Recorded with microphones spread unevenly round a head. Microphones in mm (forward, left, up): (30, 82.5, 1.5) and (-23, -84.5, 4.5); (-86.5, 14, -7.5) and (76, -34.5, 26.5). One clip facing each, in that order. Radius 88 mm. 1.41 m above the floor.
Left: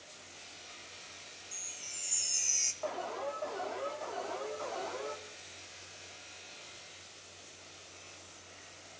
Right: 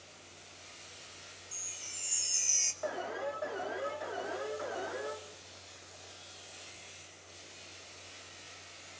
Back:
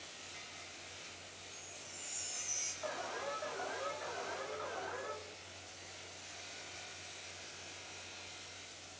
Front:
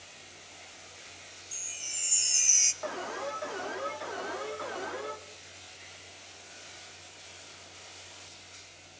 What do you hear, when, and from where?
1.5 s a chime: 20° right, 1.0 m
2.8 s an alarm: 30° right, 2.5 m